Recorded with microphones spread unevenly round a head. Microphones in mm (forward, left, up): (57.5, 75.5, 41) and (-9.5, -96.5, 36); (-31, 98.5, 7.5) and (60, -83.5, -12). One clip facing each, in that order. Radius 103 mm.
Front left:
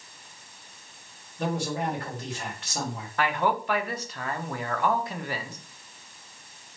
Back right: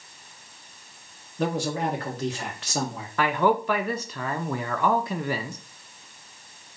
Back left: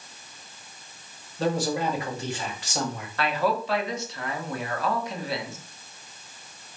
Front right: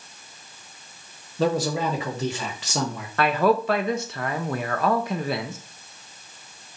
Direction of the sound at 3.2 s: 110° right.